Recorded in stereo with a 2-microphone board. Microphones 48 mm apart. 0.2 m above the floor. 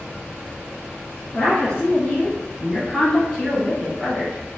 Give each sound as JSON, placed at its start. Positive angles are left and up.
{"t": 1.3, "sound": "a woman speaking", "side_deg": 20, "distance_m": 1.3}